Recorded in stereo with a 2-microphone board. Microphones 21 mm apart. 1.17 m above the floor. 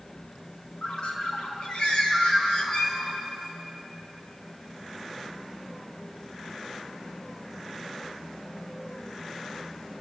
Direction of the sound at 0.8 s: 50° left (ahead or behind).